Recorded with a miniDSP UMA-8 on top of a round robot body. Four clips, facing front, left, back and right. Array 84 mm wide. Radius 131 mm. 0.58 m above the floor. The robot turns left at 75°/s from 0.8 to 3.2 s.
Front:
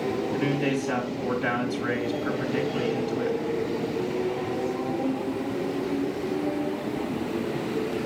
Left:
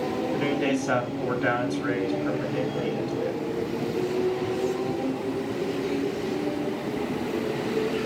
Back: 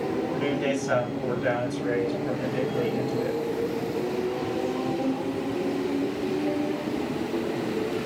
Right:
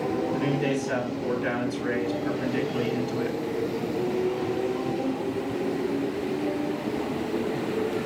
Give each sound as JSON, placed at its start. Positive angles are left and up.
{"t": 0.3, "sound": "a man speaking", "azimuth_deg": 105, "distance_m": 5.5}